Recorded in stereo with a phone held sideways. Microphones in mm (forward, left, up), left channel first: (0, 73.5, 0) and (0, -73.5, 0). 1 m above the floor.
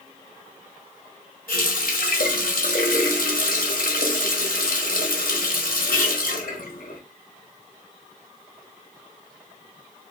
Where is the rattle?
No rattle in this recording.